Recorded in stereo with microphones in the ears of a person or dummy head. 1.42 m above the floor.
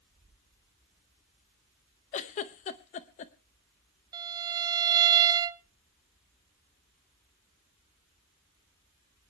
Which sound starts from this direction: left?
A giggle, at 2.1 s.